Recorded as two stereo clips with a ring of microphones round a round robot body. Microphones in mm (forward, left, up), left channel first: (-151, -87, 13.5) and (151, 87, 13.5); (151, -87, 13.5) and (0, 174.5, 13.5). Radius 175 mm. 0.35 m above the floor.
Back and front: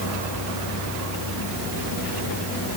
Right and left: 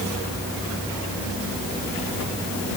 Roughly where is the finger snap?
I don't hear a finger snap.